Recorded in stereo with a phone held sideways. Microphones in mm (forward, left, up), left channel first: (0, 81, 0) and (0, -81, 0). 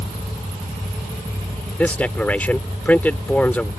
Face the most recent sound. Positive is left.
turn(degrees=10)  # may be behind; listen again after turning